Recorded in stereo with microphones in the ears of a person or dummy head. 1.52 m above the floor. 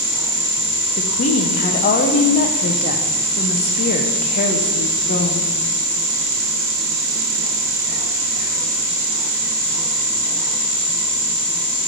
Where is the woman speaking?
35° left (ahead or behind), 0.5 m.